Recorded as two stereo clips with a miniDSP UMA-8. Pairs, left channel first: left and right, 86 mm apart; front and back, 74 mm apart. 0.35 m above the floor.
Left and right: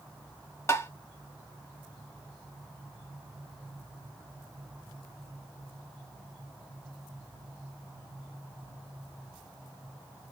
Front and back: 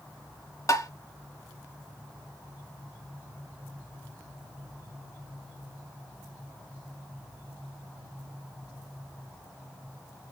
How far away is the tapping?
About 0.8 m.